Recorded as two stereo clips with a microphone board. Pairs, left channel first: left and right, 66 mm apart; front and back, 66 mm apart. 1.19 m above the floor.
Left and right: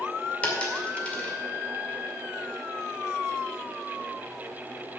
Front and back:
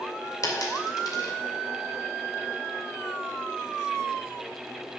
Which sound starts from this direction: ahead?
A dropped coin, at 0.4 s.